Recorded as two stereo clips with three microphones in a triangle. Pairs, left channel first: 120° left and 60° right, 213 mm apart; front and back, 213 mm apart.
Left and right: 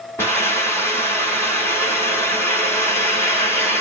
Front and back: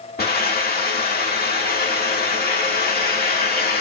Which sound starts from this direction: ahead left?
A hiss, at 0.2 s.